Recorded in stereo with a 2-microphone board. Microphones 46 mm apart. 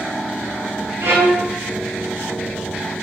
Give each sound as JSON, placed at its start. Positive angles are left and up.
{"t": 1.0, "sound": "a violin", "side_deg": -80, "distance_m": 0.8}